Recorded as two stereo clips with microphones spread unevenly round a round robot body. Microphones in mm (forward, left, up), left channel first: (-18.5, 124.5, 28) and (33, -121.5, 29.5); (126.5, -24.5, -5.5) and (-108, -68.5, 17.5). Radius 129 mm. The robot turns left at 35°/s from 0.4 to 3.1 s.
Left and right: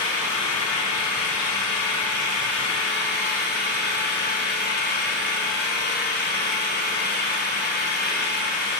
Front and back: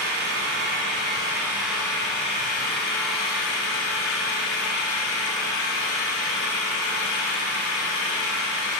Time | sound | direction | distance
0.0 | an engine running | 145° left | 3 m